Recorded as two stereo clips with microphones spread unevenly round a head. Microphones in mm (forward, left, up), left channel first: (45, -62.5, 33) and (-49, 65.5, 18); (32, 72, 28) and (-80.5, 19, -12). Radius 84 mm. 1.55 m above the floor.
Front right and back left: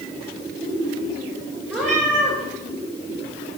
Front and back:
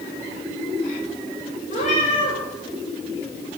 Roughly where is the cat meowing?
Ahead left.